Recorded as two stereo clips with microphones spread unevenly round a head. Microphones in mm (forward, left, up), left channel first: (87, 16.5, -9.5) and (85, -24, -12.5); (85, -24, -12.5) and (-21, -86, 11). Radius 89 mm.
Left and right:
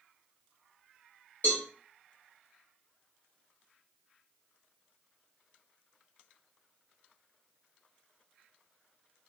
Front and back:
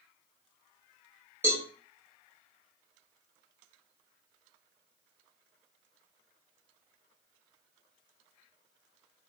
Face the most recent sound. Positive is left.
turn(degrees=130)